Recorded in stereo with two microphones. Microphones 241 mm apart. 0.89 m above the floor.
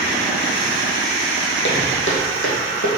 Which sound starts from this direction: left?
Footsteps, at 1.6 s.